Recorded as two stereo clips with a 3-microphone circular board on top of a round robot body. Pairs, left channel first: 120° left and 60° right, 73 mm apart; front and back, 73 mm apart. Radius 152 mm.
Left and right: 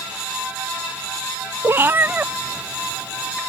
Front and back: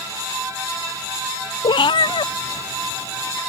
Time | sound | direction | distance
1.6 | a cat meowing | 5° right | ?